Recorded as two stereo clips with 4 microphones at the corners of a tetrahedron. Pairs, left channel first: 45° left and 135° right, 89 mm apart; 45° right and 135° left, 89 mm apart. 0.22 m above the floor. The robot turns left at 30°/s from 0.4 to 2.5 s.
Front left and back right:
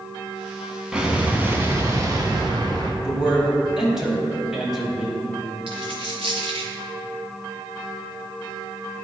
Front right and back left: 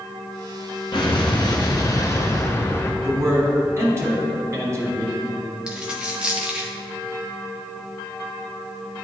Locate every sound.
0.9 s an explosion: 55° right, 0.9 m; by 2.9 s 100° right, 0.9 m
3.0 s a man speaking: 145° left, 1.4 m
5.7 s a dropped coin: 145° right, 1.2 m